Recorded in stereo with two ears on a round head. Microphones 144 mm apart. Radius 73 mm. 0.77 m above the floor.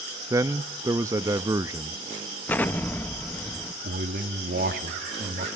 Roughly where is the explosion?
Centre.